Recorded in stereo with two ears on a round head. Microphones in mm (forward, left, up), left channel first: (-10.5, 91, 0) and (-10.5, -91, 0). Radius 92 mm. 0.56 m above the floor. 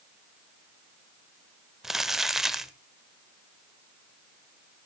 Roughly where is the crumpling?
Centre.